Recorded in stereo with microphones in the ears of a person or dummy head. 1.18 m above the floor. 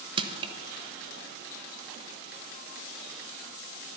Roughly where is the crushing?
Right.